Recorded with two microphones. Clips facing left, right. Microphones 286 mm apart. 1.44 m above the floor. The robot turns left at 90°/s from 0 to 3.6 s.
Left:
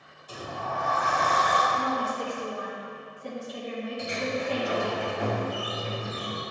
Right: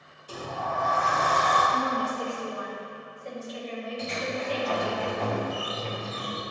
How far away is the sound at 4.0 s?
About 1.0 m.